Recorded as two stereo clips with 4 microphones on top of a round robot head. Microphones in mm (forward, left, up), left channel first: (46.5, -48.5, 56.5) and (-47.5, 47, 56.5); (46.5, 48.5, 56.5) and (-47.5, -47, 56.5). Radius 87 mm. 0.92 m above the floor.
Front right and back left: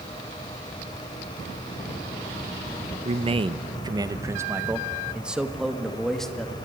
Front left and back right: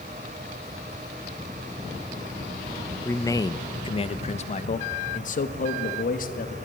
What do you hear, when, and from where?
3.0 s a man speaking: 115° left, 1.0 m; by 6.5 s 40° left, 2 m